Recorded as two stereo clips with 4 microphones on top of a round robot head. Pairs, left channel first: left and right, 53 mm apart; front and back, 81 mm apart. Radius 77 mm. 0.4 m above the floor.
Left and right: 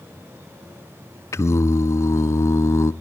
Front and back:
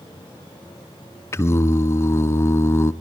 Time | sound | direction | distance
1.3 | singing | 60° left | 0.9 m